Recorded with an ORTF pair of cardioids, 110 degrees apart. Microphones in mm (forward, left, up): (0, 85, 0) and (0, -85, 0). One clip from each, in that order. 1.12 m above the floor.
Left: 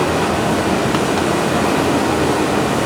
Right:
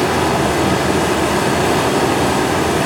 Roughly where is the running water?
Ahead right.